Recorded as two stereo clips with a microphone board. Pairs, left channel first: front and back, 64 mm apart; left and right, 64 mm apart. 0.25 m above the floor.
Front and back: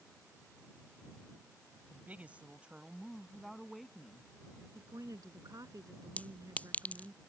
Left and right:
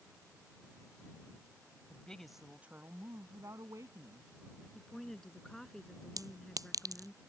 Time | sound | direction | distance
1.9 | a woman speaking | 140° left | ?
4.8 | a woman speaking | 175° left | ?
6.2 | a clink | 65° right | ?